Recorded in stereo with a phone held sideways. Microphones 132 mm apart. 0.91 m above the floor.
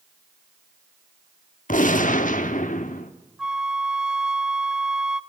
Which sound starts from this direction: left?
A gunshot, at 1.7 s.